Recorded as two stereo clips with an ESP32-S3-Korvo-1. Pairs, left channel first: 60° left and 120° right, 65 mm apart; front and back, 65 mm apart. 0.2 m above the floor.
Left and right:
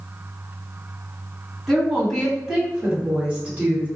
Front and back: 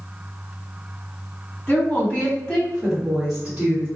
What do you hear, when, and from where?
1.7 s a woman speaking: 20° right, 1.7 m; by 3.9 s 150° right, 1.7 m